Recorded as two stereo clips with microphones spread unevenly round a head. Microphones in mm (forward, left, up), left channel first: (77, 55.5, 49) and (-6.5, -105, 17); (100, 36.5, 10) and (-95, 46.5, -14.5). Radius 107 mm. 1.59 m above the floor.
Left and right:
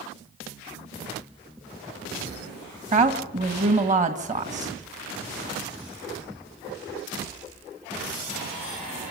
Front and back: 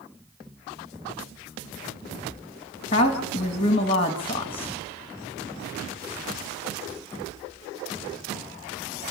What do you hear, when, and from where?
2.9 s a woman speaking: 70° right, 2 m